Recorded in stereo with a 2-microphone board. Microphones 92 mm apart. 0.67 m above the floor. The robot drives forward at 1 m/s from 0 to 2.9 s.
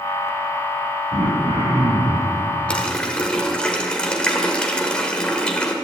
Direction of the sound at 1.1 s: 85° right.